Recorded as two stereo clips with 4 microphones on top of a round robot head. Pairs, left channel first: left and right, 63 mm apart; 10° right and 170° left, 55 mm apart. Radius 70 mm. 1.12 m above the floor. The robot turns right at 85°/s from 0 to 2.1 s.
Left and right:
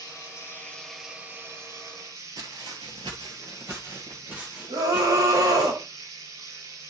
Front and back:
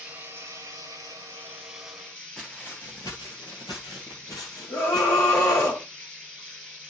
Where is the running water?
100° left, 6.5 m; by 6.9 s 80° right, 6.5 m.